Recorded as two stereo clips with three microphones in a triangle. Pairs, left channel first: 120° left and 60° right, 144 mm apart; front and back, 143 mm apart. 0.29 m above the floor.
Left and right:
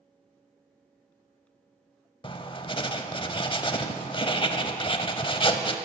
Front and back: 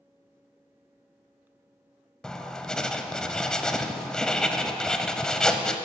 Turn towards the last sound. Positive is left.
turn(degrees=80)